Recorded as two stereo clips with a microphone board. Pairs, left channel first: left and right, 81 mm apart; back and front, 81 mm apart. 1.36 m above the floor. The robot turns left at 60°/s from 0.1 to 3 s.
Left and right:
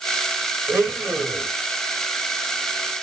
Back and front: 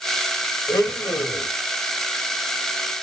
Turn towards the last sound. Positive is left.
turn(degrees=75)